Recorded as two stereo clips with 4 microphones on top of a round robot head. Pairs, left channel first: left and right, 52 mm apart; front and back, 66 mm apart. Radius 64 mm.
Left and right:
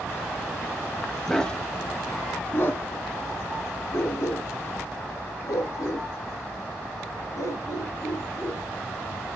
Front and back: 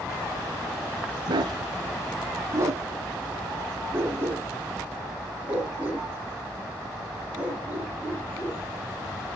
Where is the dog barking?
175° left, 1.2 m; by 9.3 s 105° left, 7 m.